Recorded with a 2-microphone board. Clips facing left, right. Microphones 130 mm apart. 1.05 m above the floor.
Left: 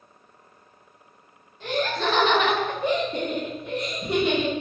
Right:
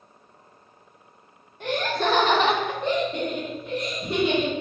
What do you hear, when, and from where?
1.6 s laughter: 60° right (ahead or behind), 1.2 m; by 4.5 s 70° left (ahead or behind), 1.6 m